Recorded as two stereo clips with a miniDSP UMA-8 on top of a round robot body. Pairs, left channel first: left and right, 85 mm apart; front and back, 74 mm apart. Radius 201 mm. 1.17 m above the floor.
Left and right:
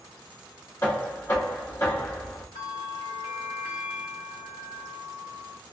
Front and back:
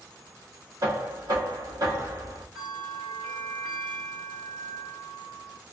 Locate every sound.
0.8 s knocking: 145° left, 1.9 m
2.5 s a bell: 120° left, 0.6 m